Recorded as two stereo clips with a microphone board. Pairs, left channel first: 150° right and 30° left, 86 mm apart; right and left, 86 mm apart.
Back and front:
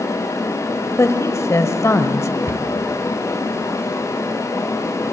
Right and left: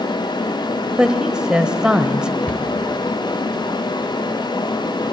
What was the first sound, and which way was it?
A woman speaking, 170° left.